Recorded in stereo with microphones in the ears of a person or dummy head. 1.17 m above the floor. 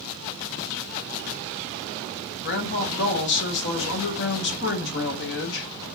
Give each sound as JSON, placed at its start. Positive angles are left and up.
{"t": 2.5, "sound": "a woman speaking", "side_deg": 50, "distance_m": 0.7}